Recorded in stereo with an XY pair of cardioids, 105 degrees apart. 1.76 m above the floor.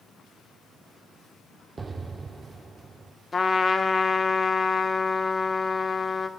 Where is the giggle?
I don't hear a giggle.